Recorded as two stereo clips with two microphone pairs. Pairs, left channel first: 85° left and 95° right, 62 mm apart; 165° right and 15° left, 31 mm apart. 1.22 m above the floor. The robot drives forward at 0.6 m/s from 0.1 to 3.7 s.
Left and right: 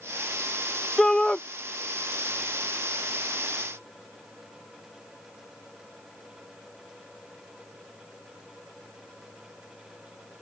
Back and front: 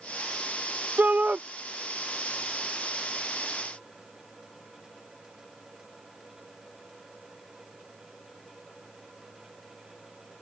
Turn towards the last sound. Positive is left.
turn(degrees=60)